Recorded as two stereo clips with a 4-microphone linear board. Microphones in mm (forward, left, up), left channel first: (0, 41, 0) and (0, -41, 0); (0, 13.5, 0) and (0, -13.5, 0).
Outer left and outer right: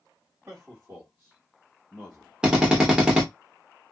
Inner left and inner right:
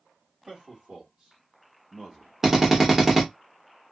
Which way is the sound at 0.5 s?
35° right (ahead or behind).